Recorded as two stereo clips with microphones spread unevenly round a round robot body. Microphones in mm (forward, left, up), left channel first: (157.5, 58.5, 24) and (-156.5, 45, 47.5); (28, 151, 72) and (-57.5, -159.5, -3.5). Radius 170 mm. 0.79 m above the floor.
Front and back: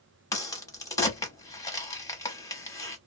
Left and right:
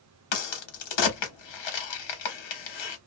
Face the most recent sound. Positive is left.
turn(degrees=85)